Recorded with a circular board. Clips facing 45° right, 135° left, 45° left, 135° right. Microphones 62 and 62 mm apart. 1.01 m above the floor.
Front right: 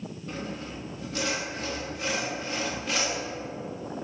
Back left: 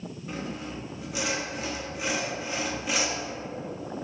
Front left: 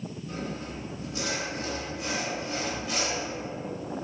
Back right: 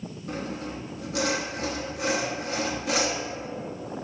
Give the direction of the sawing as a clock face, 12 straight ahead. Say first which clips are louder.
Back left 1 dB, back right 4 dB; 5 o'clock.